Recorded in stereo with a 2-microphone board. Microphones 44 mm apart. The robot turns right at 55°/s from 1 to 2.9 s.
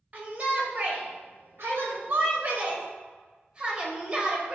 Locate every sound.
0.1 s a shout: 135° right, 1.1 m; by 4.5 s 30° right, 1.1 m